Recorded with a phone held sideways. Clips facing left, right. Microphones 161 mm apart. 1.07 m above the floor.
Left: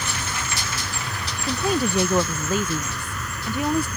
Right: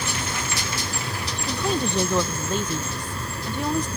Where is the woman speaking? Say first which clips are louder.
Left 3 dB; 10° left (ahead or behind).